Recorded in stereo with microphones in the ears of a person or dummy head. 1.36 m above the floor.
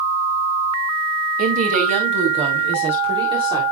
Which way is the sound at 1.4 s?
50° right (ahead or behind).